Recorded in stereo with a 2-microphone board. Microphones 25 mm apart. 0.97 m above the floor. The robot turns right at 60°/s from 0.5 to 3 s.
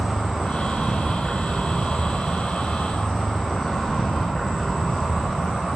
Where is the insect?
120° right, 0.9 m; by 5.8 s 30° left, 0.9 m.